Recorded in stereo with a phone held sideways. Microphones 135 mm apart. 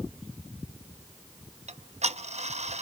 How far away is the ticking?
About 0.8 m.